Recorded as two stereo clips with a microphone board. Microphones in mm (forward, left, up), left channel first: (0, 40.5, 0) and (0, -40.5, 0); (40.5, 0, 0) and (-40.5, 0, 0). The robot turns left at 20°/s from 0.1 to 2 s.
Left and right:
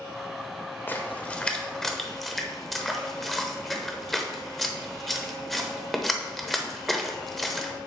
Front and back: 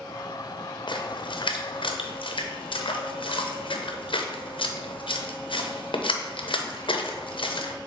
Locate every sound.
0.9 s a splash: 25° left, 0.7 m; by 7.7 s straight ahead, 0.7 m